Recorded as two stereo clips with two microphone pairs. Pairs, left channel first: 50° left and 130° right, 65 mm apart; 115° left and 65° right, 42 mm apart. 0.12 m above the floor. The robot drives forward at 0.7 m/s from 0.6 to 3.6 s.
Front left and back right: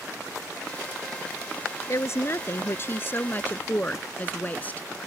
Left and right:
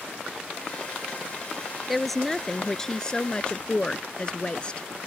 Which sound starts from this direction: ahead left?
A woman speaking, at 1.9 s.